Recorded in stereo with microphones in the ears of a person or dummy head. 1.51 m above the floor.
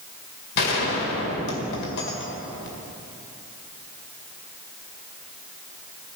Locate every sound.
0.6 s a gunshot: 60° left (ahead or behind), 2 m